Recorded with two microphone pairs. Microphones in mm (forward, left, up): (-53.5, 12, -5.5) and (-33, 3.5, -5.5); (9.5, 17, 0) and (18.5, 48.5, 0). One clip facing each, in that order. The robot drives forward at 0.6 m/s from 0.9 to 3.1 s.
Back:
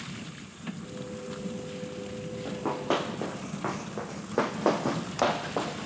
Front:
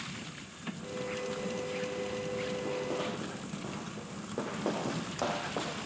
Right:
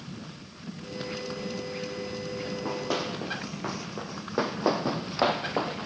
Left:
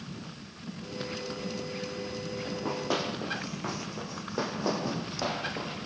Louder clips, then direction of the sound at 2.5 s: Back 5 dB, even; 160° left.